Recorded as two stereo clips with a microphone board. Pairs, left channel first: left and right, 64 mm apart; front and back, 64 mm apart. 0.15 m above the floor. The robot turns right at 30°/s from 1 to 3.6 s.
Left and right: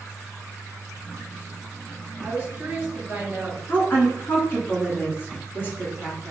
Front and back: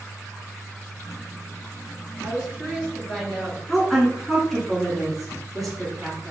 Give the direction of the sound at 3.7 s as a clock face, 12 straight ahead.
9 o'clock.